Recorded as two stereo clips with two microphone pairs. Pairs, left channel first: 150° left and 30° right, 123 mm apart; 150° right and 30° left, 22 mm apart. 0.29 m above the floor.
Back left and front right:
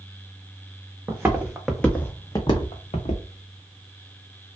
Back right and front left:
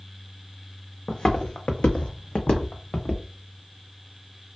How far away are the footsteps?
About 1.0 m.